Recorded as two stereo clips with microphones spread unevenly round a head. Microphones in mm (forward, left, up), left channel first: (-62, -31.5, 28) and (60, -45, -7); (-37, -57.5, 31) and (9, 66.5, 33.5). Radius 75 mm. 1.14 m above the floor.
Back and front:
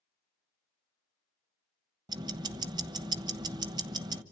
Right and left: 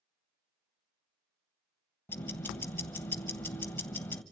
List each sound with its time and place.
2.1 s ticking: 55° right, 1.0 m